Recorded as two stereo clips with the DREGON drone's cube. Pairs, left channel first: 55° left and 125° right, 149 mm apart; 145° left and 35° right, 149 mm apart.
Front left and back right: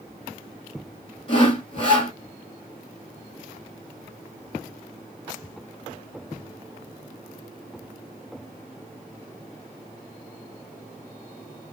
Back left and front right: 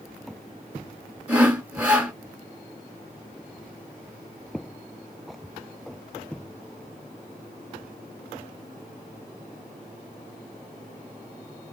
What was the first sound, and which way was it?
Sawing, 40° left.